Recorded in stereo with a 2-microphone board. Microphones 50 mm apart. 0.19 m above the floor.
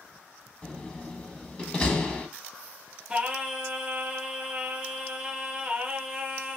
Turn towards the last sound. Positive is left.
turn(degrees=-15)  # may be behind; listen again after turning